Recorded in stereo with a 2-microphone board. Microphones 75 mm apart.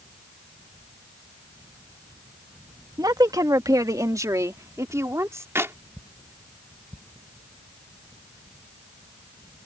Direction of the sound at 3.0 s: 60° right (ahead or behind).